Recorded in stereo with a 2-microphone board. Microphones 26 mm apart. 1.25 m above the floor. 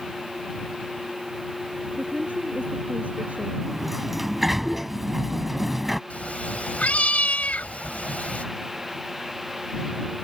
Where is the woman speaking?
85° right.